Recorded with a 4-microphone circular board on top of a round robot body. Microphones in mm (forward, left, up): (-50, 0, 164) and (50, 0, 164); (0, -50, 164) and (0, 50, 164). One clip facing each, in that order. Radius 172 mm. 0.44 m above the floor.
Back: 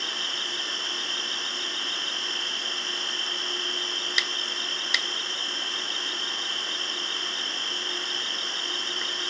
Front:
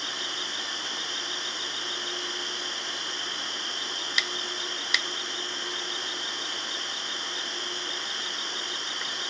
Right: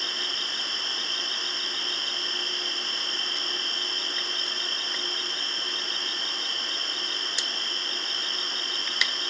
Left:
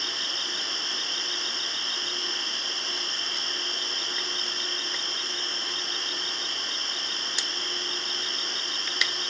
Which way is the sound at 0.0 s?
65° right.